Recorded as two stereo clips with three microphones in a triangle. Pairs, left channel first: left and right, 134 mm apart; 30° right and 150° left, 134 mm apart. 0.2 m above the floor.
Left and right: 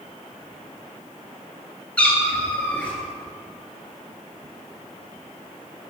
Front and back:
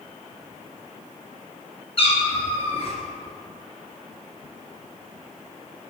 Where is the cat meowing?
10° left, 1.2 m.